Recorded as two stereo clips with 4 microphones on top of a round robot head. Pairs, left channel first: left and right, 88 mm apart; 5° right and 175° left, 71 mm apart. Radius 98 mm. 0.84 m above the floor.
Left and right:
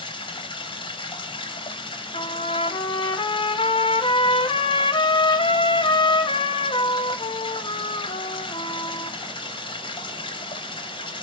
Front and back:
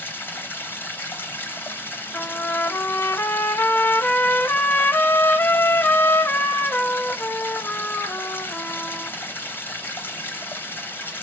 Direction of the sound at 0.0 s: 60° left.